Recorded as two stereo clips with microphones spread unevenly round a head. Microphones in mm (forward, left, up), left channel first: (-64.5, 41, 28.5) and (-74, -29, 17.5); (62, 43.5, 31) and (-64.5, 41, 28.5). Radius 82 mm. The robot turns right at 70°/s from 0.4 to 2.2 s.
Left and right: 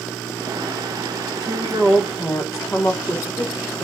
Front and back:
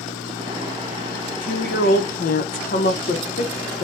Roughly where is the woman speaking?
Ahead right.